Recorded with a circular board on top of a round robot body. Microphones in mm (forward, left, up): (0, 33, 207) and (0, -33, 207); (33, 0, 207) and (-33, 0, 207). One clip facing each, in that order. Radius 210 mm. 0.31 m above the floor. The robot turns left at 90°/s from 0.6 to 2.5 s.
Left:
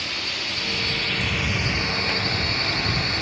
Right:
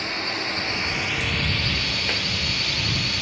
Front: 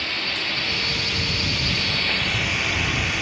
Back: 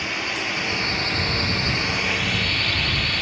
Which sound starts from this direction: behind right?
A drone, at 0.0 s.